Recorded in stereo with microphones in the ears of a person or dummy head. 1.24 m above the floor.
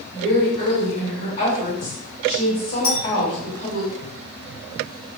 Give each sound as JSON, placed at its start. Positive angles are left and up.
{"t": 0.1, "sound": "a woman speaking", "side_deg": 50, "distance_m": 1.6}
{"t": 2.8, "sound": "a clink", "side_deg": 45, "distance_m": 1.7}